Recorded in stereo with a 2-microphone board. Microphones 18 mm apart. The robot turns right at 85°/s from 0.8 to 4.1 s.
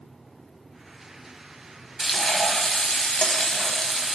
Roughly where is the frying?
Ahead.